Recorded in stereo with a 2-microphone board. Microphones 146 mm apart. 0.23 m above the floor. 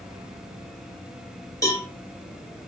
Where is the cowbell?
25° left (ahead or behind), 1.3 m.